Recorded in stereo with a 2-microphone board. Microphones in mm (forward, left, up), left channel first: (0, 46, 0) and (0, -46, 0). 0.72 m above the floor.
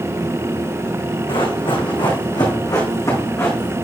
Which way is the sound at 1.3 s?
70° left (ahead or behind).